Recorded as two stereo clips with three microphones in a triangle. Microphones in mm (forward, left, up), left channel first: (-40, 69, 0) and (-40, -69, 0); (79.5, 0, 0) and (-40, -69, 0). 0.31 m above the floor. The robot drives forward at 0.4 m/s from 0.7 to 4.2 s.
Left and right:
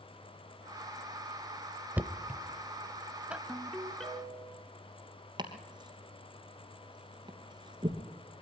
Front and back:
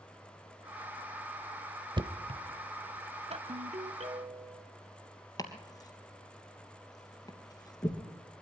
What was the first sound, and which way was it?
Knocking, 160° right.